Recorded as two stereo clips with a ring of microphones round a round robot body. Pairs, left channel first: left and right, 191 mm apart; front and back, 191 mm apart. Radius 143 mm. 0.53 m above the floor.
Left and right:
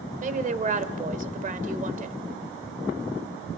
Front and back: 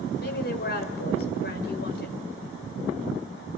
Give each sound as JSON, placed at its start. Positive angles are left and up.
{"t": 0.2, "sound": "a woman speaking", "azimuth_deg": -40, "distance_m": 2.0}